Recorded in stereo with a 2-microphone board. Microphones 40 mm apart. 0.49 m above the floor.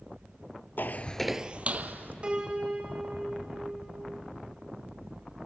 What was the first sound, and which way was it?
Footsteps, 60° left (ahead or behind).